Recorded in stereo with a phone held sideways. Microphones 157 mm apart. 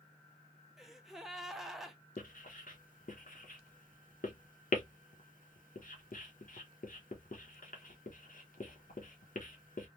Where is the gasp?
Centre (ahead or behind), 0.6 m.